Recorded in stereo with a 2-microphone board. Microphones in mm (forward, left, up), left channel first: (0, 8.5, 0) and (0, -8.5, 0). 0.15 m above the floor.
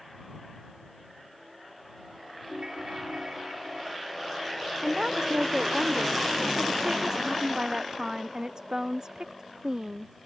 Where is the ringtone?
60° right (ahead or behind).